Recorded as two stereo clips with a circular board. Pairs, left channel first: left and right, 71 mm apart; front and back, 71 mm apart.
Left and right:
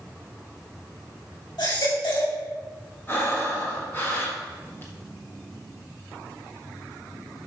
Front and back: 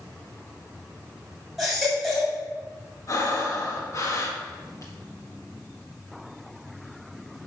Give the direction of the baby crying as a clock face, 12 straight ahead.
9 o'clock.